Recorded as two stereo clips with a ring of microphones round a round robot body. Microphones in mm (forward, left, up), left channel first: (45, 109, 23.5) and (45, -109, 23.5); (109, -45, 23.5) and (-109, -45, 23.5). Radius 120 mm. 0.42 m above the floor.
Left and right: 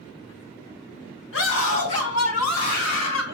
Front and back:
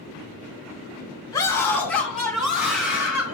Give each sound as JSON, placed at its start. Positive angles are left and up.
{"t": 1.3, "sound": "a scream", "azimuth_deg": 75, "distance_m": 2.5}